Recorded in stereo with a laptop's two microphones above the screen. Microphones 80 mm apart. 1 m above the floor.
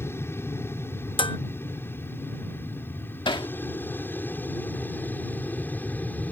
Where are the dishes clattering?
85° left.